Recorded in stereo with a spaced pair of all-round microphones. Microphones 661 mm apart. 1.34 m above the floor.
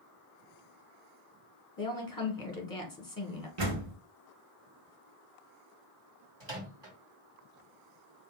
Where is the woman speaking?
30° left (ahead or behind), 1.3 m.